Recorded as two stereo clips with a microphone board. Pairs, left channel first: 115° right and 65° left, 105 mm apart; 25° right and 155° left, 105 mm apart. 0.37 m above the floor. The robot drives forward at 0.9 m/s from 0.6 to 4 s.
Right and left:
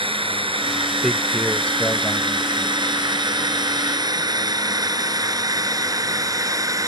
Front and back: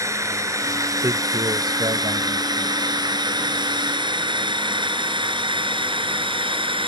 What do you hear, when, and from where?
0.0 s a drone: 95° left; by 6.9 s 125° left
1.0 s a man speaking: 165° left; by 3.1 s 175° left